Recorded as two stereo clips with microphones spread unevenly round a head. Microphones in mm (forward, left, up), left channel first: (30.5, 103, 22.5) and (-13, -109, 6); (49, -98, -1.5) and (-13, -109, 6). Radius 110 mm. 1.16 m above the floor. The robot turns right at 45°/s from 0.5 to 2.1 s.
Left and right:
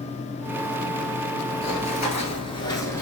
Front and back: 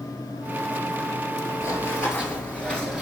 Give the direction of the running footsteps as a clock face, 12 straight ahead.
11 o'clock.